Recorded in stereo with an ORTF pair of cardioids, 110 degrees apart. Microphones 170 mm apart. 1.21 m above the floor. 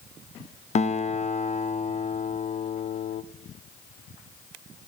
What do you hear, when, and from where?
0.8 s a guitar: 45° left, 0.5 m